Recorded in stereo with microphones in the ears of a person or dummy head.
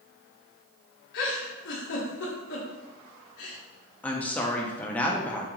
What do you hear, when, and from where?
1.1 s a giggle: 65° left (ahead or behind), 1.5 m
4.0 s a woman speaking: 5° left (ahead or behind), 0.5 m